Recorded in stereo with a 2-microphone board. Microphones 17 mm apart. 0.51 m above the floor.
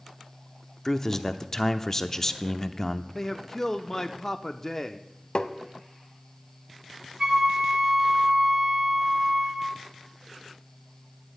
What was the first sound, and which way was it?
A man speaking, 20° left (ahead or behind).